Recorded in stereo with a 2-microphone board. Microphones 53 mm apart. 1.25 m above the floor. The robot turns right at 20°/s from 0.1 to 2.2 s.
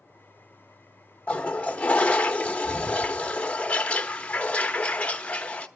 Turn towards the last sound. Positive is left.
turn(degrees=25)  # may be behind; listen again after turning